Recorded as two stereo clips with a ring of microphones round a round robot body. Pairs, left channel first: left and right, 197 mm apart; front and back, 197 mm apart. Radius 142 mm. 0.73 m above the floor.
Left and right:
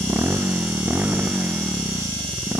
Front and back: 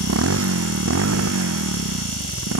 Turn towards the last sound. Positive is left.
turn(degrees=180)